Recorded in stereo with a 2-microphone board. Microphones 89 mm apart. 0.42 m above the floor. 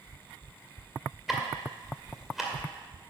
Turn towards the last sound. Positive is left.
turn(degrees=-5)  # may be behind; listen again after turning